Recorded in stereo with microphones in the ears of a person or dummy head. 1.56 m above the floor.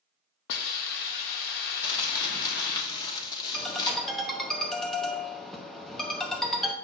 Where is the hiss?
55° left (ahead or behind), 0.9 m.